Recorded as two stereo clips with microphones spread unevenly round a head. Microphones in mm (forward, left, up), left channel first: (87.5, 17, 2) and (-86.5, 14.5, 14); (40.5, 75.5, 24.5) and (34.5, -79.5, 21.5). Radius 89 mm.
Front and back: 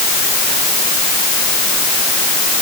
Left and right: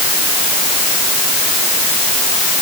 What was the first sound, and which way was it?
Only background noise.